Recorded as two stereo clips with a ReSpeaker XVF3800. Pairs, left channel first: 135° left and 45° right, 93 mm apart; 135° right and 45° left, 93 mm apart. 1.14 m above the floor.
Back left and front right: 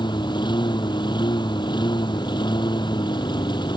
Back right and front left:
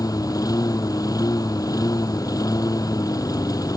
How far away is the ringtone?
I don't hear a ringtone.